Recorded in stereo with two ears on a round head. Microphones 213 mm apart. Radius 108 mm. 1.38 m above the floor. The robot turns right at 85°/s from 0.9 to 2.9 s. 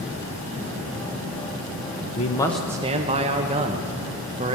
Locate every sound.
2.1 s a man speaking: 145° left, 1.0 m; by 4.6 s 155° right, 1.0 m